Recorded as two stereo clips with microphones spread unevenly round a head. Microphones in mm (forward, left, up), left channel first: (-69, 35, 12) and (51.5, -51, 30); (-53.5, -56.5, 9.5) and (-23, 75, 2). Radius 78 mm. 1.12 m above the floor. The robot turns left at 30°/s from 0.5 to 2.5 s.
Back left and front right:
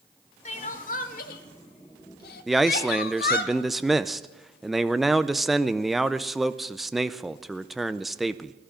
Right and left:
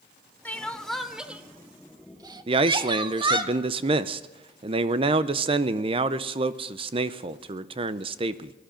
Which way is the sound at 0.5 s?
175° right.